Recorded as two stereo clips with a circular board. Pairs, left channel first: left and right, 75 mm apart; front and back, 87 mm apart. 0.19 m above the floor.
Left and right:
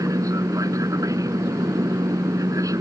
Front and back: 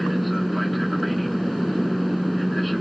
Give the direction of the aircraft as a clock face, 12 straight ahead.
3 o'clock.